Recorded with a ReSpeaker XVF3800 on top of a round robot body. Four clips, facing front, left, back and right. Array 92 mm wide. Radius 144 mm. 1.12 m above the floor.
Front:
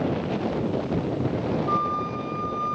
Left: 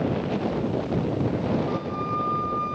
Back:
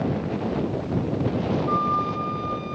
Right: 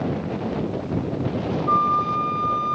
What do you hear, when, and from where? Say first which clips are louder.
1.7 s a flute: right 8 dB, back 3 dB; 85° right, 2.5 m